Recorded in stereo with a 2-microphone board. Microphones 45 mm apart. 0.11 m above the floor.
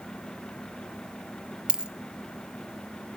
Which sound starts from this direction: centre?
A dropped coin, at 1.7 s.